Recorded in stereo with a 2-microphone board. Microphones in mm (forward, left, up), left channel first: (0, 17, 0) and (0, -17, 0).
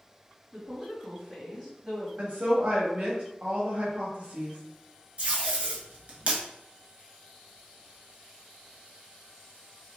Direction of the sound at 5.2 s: 40° right (ahead or behind).